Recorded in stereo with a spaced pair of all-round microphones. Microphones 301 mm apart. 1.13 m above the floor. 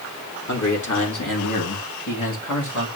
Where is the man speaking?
65° left (ahead or behind), 2.5 m; by 2.9 s 70° left (ahead or behind), 3.5 m.